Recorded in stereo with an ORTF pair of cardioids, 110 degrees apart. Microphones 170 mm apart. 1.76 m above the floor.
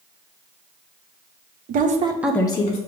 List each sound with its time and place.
1.7 s a woman speaking: 60° right, 0.8 m; by 2.8 s 40° left, 0.8 m